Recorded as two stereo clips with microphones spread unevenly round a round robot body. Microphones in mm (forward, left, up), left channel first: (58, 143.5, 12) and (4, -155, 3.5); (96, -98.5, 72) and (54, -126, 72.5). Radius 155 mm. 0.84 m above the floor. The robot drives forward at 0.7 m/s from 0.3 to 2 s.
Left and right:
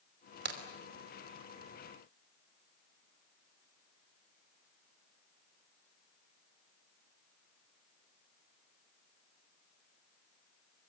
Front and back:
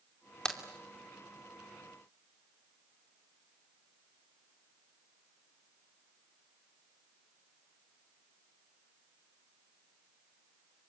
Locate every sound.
0.5 s a crack: 45° right, 2.5 m